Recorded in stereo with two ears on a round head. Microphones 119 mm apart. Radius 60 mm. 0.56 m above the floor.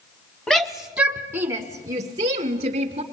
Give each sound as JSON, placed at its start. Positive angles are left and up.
{"t": 0.5, "sound": "a shout", "side_deg": 0, "distance_m": 0.9}